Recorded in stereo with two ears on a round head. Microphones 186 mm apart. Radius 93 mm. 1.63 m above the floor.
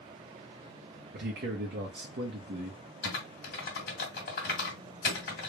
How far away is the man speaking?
About 1.1 m.